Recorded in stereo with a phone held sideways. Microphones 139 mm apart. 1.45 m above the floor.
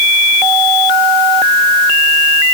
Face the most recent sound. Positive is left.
No sound to turn to.